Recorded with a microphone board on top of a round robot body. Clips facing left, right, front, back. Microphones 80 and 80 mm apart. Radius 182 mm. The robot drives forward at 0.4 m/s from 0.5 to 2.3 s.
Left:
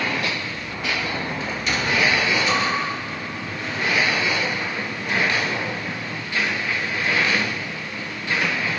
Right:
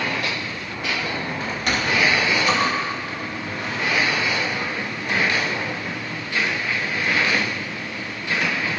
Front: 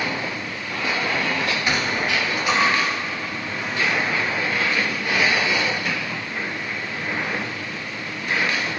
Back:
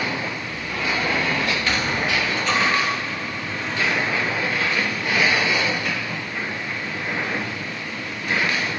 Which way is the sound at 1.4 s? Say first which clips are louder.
Right 3 dB, even; 65° right.